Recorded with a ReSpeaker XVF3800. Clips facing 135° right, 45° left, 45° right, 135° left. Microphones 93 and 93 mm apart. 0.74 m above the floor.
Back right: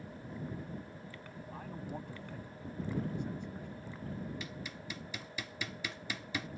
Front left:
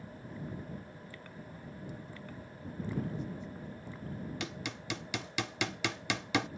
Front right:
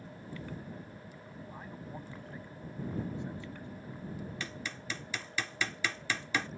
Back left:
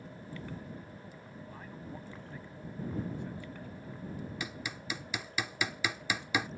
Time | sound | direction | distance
1.5 | a man speaking | 125° right | ?
4.4 | hammering | 60° left | ?